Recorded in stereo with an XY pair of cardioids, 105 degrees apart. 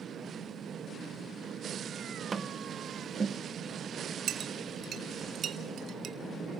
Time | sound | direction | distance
2.3 | tapping | 30° right | 1.1 m
4.3 | a clink | 60° right | 1.9 m